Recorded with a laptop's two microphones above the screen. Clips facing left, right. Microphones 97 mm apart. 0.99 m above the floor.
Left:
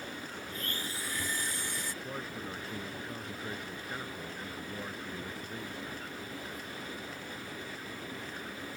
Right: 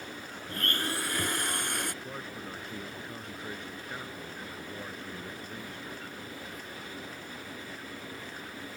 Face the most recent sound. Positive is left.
turn(degrees=0)  # may be behind; listen again after turning